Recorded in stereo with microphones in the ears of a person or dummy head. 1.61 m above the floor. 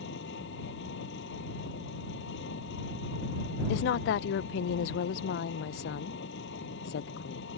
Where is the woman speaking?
45° left (ahead or behind).